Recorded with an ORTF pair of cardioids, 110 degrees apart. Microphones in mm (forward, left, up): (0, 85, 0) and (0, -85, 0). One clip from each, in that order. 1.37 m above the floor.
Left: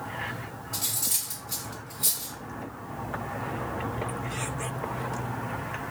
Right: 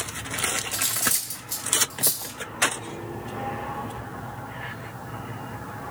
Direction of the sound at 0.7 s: 30° right.